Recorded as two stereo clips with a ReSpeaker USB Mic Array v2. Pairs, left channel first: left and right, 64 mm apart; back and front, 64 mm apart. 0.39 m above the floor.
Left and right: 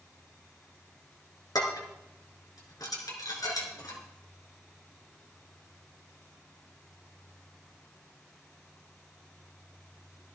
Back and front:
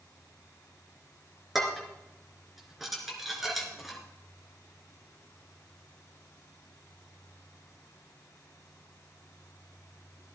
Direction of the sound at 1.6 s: 85° left.